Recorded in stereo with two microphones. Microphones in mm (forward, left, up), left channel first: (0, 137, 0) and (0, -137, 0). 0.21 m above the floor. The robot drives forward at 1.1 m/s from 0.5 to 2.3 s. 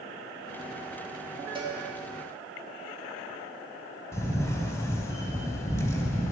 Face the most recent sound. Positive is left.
turn(degrees=10)  # may be behind; listen again after turning